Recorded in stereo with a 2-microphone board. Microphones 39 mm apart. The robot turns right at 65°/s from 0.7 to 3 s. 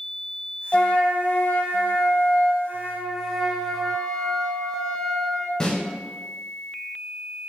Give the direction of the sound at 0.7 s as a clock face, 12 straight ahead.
11 o'clock.